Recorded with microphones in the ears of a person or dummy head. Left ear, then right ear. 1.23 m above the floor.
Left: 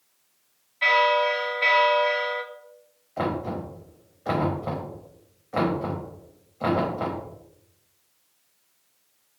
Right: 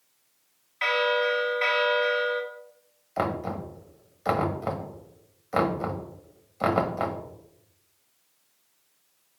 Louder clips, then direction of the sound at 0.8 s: Left 4 dB; 40° right (ahead or behind).